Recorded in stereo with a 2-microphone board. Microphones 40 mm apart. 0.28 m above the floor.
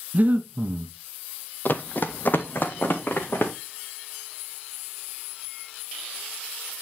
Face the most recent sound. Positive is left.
turn(degrees=50)  # may be behind; listen again after turning